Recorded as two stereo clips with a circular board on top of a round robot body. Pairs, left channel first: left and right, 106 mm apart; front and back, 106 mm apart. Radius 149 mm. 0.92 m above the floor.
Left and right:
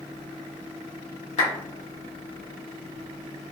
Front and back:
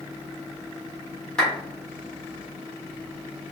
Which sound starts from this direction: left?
A clap, at 1.4 s.